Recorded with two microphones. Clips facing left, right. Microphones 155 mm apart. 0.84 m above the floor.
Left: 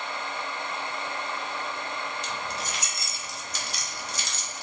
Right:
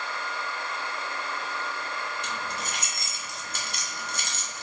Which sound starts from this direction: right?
Keys jangling, at 2.2 s.